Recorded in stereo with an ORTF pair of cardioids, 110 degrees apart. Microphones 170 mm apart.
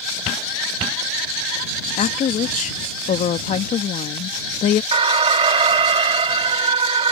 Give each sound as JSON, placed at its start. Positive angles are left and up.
{"t": 2.0, "sound": "a woman speaking", "azimuth_deg": 45}
{"t": 4.9, "sound": "an alarm", "azimuth_deg": -35}